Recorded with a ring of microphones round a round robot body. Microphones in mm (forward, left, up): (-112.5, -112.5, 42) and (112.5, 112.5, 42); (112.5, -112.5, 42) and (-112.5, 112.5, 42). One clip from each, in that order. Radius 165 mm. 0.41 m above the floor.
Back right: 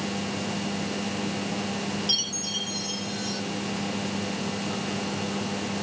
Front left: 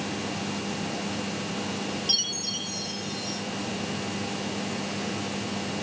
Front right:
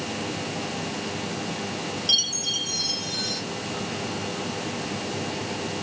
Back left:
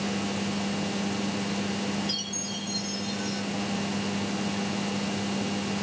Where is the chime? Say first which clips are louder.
Front left 1 dB, front right 10 dB; 45° right, 0.8 m.